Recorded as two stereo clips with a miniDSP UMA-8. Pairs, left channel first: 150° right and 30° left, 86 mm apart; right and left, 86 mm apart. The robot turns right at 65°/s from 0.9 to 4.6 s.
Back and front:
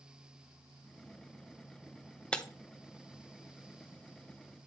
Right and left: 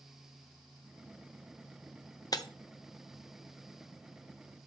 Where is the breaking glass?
75° right, 0.7 m; by 2.5 s 65° right, 0.7 m.